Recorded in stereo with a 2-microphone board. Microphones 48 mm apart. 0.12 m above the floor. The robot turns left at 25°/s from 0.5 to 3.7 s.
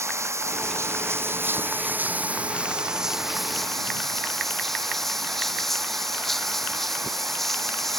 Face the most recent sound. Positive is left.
turn(degrees=175)